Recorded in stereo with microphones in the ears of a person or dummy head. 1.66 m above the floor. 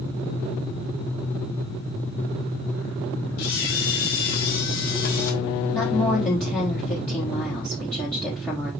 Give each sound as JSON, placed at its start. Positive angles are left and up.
{"t": 3.4, "sound": "a camera shutter", "side_deg": 55, "distance_m": 2.5}
{"t": 5.7, "sound": "a woman speaking", "side_deg": 5, "distance_m": 3.0}